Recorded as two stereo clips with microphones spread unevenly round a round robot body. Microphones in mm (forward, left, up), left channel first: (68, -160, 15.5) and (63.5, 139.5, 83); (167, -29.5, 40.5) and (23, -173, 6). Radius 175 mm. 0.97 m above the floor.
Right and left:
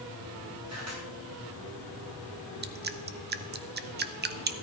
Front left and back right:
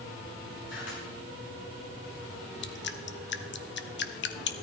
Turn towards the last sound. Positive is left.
turn(degrees=30)